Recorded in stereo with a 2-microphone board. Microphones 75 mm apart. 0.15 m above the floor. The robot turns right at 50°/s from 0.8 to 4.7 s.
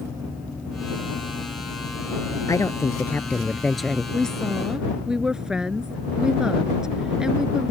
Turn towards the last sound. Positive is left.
turn(degrees=-10)  # may be behind; listen again after turning